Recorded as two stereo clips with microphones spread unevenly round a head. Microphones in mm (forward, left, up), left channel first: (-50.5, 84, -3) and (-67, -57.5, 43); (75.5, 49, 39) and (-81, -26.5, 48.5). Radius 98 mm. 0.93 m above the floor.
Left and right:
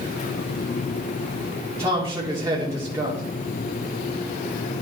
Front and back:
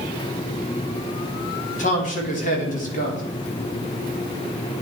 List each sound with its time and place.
1.8 s a man speaking: 15° right, 2.5 m